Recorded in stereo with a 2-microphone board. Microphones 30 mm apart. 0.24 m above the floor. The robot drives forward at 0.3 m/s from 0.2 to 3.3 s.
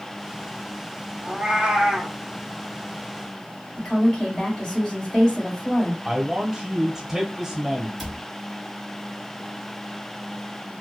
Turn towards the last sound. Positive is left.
turn(degrees=0)  # may be behind; listen again after turning